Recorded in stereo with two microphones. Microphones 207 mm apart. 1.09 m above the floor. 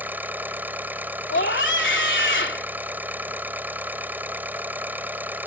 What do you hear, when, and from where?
0.0 s an engine running: 10° right (ahead or behind)
1.3 s a scream: 65° left (ahead or behind)